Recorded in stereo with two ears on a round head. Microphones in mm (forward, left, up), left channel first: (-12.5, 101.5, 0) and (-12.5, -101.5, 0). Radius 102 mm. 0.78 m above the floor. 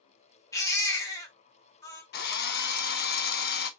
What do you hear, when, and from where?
0.5 s a baby crying: 15° left (ahead or behind), 0.6 m
2.1 s a drill: 45° left (ahead or behind), 0.5 m